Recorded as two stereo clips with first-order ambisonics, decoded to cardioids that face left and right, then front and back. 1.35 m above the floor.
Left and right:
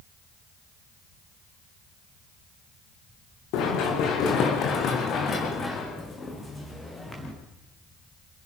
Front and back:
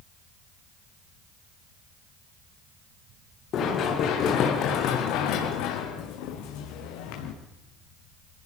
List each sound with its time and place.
3.5 s running footsteps: 55° left, 5.5 m; by 7.3 s 5° left, 5.5 m